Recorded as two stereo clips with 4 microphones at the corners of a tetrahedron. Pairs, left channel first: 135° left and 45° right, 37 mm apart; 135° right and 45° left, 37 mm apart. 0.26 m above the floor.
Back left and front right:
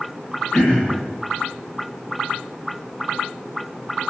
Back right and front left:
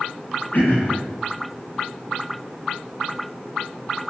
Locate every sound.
0.5 s throat clearing: 160° right, 0.8 m